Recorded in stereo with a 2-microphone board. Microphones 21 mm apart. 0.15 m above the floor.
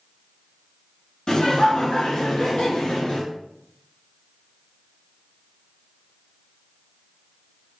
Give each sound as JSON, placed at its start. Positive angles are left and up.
{"t": 1.3, "sound": "laughter", "side_deg": 45, "distance_m": 1.5}